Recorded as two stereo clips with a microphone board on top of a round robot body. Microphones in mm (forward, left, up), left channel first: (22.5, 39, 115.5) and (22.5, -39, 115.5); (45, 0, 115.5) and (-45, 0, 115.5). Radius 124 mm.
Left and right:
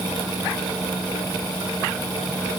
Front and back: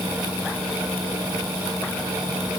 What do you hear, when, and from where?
Only background noise.